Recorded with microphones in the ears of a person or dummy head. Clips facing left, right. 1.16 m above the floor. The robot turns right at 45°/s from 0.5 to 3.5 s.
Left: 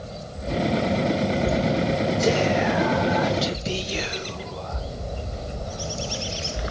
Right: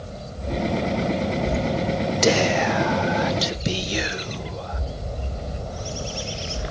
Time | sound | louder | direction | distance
2.2 | whispering | right 3 dB | 80° right | 0.8 m